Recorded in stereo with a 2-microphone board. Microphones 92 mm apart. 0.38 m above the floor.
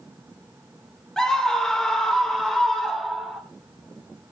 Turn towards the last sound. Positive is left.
turn(degrees=5)  # may be behind; listen again after turning